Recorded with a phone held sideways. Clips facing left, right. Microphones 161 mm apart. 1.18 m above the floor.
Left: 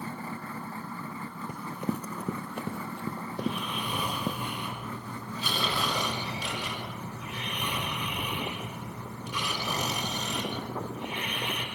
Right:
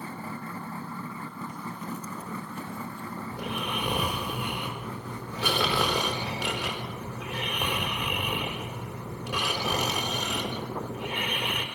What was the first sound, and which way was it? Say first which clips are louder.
Running footsteps: left 3 dB; 55° left (ahead or behind).